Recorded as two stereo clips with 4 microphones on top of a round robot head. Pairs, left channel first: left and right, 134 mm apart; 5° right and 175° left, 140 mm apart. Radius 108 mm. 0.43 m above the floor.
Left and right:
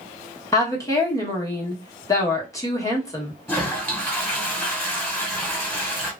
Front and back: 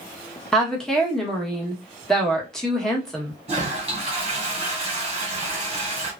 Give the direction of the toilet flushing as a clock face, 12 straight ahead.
7 o'clock.